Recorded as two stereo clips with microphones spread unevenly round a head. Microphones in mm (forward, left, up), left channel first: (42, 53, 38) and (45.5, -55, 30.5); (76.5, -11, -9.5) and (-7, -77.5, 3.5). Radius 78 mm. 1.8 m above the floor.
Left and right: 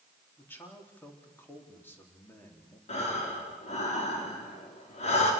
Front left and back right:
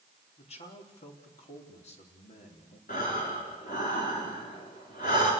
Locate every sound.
0.4 s a man speaking: 20° left, 4 m
2.9 s breathing: 70° left, 5 m